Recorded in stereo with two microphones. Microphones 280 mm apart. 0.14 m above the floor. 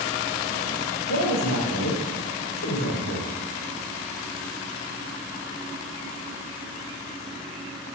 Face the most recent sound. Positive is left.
turn(degrees=70)  # may be behind; listen again after turning